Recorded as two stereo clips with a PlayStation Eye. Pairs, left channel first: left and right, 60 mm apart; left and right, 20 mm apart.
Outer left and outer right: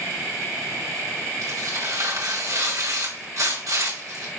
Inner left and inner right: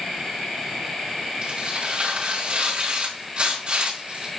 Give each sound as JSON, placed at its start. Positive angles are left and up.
{"t": 1.4, "sound": "tearing paper", "side_deg": -75, "distance_m": 5.0}